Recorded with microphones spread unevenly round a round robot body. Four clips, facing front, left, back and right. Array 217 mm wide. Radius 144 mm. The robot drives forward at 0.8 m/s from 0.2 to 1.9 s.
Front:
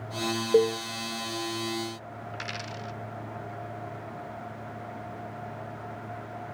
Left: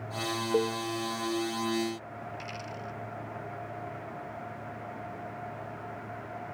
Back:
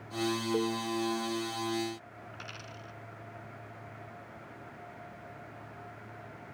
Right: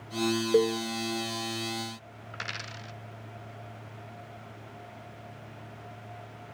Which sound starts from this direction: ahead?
A cowbell, at 0.5 s.